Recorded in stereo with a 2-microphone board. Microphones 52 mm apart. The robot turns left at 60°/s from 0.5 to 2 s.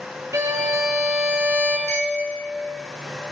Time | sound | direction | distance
0.3 | a violin | 75° right | 1.4 m
1.9 | a clink | 60° left (ahead or behind) | 4 m